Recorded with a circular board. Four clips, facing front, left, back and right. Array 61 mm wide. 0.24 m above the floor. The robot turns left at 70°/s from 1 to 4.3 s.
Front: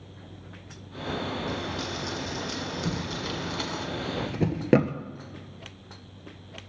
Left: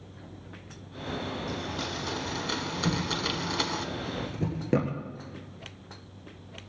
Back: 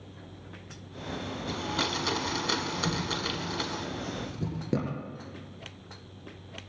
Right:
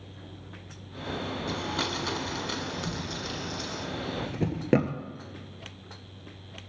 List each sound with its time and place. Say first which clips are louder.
1.5 s a blender: right 3 dB, back 1 dB; 120° right, 1.2 m; by 3.9 s 75° left, 1.2 m
2.9 s a drawer: left 5 dB, even; 80° left, 1.3 m; by 5.0 s 25° right, 1.3 m